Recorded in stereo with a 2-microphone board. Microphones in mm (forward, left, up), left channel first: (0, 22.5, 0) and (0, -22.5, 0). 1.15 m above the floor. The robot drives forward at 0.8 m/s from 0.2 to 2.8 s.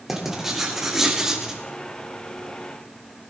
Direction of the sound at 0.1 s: 5° right (ahead or behind).